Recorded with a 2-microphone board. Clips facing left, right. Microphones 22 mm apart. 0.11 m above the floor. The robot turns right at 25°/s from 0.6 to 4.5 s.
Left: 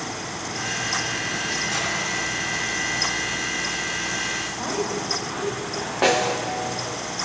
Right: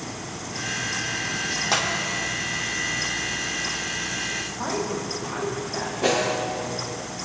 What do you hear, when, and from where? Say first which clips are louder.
1.7 s a clap: right 7 dB; 50° right (ahead or behind), 4.5 m; by 1.9 s 45° right (ahead or behind), 4.5 m
4.6 s a woman speaking: left 1 dB; 5° right (ahead or behind), 4 m
6.0 s a snare drum: left 3 dB; 60° left (ahead or behind), 6 m